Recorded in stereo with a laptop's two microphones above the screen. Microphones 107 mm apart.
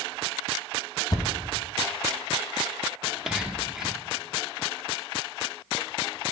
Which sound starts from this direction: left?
A thud, at 1.1 s.